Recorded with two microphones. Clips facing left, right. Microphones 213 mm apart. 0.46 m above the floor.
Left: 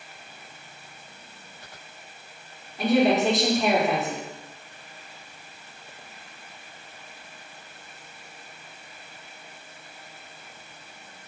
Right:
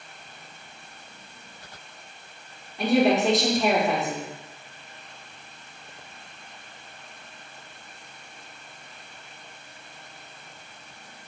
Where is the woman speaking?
Centre (ahead or behind), 0.9 m.